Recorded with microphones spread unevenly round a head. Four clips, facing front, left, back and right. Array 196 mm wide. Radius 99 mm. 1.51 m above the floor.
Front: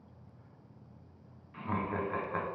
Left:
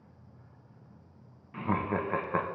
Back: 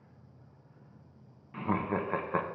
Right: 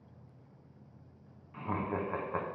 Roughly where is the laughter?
Behind left.